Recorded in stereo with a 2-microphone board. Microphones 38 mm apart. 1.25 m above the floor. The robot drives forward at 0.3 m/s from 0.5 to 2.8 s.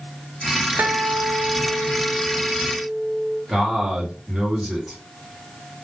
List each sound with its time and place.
0.8 s a guitar: 50° right (ahead or behind), 0.5 m; by 3.4 s 40° right (ahead or behind), 0.6 m
3.5 s a man speaking: 5° right (ahead or behind), 1.0 m